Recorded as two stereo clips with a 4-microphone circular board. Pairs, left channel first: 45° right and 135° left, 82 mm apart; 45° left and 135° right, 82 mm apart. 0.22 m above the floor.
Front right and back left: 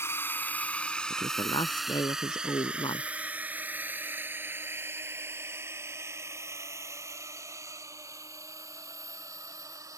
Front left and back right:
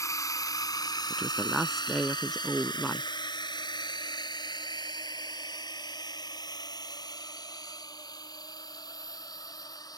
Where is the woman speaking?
45° right.